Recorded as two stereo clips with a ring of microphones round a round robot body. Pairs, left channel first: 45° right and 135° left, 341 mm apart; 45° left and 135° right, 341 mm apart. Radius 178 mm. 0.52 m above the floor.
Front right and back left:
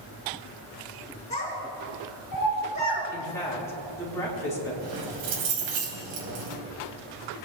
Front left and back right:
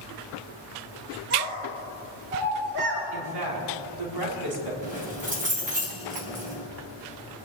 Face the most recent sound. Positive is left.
turn(degrees=155)